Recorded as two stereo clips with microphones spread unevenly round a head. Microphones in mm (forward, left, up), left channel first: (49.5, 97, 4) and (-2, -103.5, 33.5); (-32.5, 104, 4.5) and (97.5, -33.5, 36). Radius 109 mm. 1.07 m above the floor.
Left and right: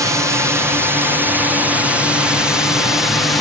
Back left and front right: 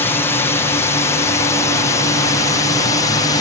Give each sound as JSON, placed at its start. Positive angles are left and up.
{"t": 0.0, "sound": "a drone", "azimuth_deg": 180}